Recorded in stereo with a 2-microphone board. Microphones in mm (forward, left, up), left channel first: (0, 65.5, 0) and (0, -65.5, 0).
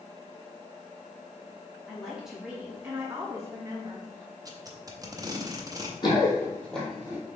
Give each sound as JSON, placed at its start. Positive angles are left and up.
{"t": 1.9, "sound": "a woman speaking", "side_deg": 0, "distance_m": 2.0}
{"t": 4.5, "sound": "tape being pulled", "side_deg": -30, "distance_m": 0.7}
{"t": 6.0, "sound": "running footsteps", "side_deg": 35, "distance_m": 2.0}